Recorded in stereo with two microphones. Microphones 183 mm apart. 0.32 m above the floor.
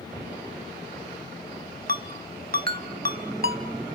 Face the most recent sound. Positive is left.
turn(degrees=-55)  # may be behind; listen again after turning